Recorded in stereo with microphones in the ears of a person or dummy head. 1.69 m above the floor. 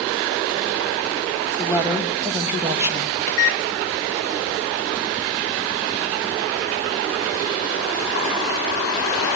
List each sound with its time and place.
1.6 s a woman speaking: 15° right (ahead or behind), 2 m
3.3 s a microwave: 60° left (ahead or behind), 0.6 m